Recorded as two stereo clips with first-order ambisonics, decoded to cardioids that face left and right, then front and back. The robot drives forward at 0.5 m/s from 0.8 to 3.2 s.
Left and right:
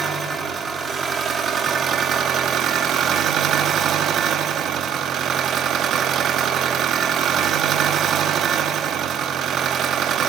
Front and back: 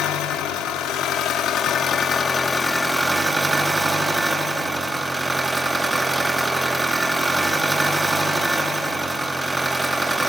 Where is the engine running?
25° right, 1.5 m; by 10.3 s 100° right, 1.0 m.